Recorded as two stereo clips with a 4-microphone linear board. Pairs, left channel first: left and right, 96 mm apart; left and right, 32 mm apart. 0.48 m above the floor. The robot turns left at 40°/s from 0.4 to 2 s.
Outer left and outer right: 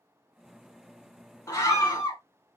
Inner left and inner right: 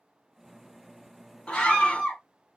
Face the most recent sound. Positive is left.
turn(degrees=35)  # may be behind; listen again after turning